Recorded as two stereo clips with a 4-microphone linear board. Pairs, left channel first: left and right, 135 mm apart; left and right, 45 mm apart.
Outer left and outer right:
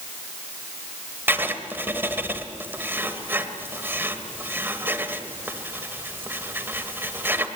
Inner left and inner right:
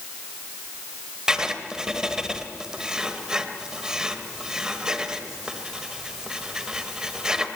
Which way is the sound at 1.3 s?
15° right (ahead or behind).